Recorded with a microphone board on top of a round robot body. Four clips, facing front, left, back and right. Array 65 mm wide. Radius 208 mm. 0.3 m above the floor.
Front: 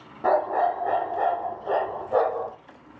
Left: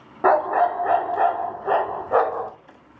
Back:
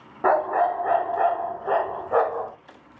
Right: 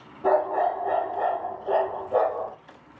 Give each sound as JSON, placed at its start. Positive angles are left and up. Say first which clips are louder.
{"t": 0.2, "sound": "a dog barking", "louder": "left 4 dB, back 1 dB", "azimuth_deg": 120, "distance_m": 1.9}